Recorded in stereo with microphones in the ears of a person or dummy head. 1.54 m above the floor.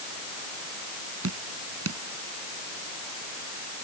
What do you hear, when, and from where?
1.2 s dripping: 85° right